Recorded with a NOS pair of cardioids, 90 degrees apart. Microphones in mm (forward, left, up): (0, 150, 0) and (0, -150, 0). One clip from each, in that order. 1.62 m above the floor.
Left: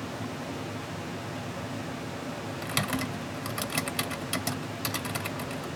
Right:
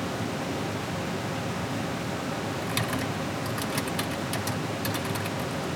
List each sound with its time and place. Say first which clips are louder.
0.0 s a fan: right 5 dB; 30° right, 0.7 m
2.6 s typing on a keyboard: left 2 dB; 15° left, 2 m